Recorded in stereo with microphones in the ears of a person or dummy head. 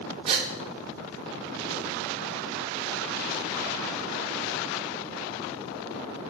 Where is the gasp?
30° right (ahead or behind), 1.3 m.